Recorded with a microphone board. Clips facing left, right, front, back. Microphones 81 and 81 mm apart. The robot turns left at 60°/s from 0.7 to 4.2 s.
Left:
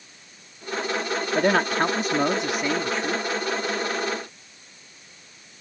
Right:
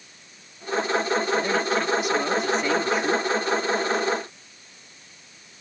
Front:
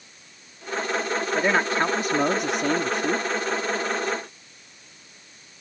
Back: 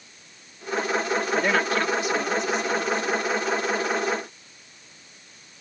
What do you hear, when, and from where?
1.4 s a man speaking: 85° left; by 3.2 s 30° right